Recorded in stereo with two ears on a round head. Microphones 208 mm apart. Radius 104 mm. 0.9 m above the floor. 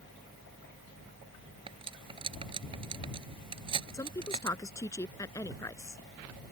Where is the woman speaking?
15° left (ahead or behind).